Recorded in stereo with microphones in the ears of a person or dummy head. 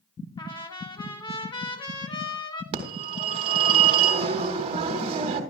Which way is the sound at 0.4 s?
25° left (ahead or behind).